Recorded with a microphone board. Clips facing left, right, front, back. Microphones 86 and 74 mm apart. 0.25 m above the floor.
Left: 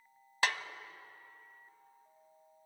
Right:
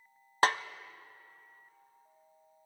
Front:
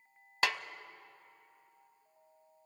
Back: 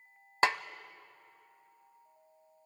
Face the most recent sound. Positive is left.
turn(degrees=-125)